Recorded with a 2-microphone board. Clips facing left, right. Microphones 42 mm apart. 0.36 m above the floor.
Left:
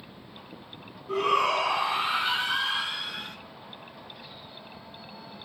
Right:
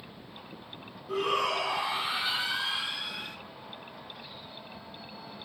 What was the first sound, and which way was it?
A shout, 40° left (ahead or behind).